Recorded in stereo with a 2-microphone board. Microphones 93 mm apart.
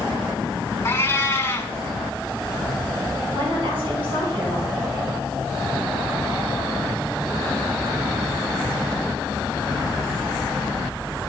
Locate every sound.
0.8 s a cat meowing: 30° left (ahead or behind), 0.8 m
3.3 s a woman speaking: 75° right (ahead or behind), 4 m